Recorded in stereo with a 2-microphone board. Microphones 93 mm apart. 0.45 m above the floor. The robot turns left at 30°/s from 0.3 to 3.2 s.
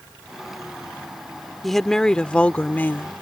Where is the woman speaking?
Straight behind; by 3.1 s 135° left.